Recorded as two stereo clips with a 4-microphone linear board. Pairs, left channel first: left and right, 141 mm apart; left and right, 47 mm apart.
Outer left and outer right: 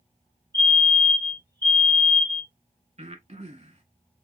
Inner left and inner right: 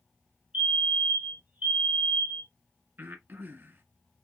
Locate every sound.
0.5 s a fire alarm: 30° right (ahead or behind), 3 m
3.0 s breathing: 50° right (ahead or behind), 1.4 m